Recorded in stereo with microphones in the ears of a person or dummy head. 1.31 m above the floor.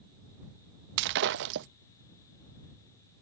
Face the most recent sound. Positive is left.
turn(degrees=-60)  # may be behind; listen again after turning